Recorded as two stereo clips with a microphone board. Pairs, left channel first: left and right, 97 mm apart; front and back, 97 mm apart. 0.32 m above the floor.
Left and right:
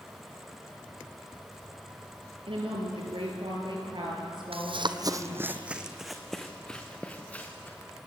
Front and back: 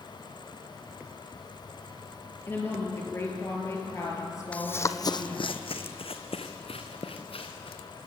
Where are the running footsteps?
75° right, 1.0 m; by 7.8 s 15° left, 3.5 m.